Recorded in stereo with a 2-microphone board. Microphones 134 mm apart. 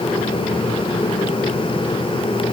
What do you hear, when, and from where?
Only background noise.